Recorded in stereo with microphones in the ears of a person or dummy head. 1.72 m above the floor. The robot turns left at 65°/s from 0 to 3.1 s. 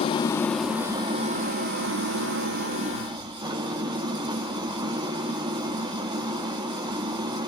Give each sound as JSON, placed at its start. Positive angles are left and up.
{"t": 0.0, "sound": "an engine running", "azimuth_deg": 40, "distance_m": 1.1}